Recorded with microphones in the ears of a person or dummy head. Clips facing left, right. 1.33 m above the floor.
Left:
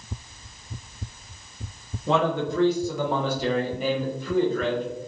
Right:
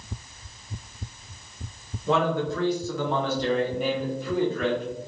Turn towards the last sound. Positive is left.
turn(degrees=-5)  # may be behind; listen again after turning